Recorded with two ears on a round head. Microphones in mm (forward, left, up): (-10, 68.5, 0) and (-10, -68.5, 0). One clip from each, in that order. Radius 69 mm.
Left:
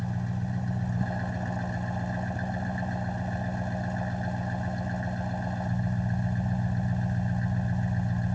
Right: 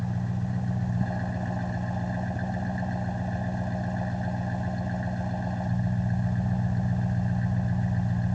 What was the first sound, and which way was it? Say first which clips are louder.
An engine running: right 1 dB; 20° left (ahead or behind).